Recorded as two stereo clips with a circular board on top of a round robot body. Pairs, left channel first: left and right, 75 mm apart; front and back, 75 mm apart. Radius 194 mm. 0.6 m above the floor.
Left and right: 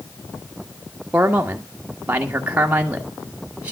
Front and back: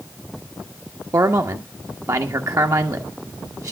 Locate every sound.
1.1 s a man speaking: 155° right, 1.7 m